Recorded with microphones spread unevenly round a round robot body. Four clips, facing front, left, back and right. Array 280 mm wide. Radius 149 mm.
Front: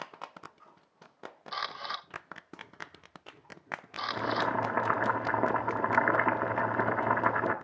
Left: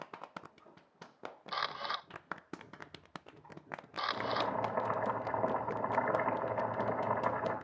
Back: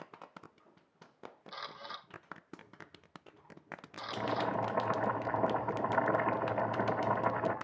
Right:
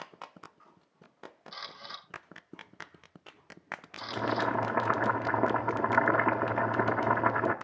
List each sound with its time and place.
1.5 s a camera shutter: 35° left, 0.9 m
4.0 s boiling: 70° right, 1.5 m